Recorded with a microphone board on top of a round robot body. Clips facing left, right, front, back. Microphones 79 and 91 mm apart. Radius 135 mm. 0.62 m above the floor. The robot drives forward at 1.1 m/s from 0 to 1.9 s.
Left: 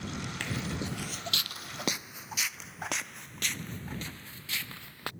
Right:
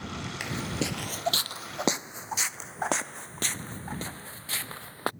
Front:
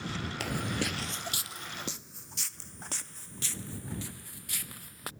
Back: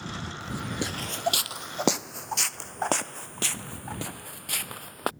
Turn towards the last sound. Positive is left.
turn(degrees=-145)